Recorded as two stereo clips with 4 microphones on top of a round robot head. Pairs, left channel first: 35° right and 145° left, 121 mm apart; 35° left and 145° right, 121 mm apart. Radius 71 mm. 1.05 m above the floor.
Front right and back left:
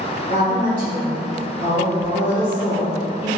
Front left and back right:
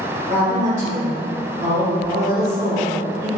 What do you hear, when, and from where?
0.3 s a woman speaking: 160° left, 1.6 m